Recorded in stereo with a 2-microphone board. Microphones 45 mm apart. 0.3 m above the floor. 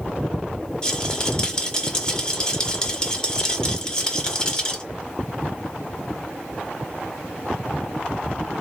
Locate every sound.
0.8 s a rattle: 20° left (ahead or behind), 1.0 m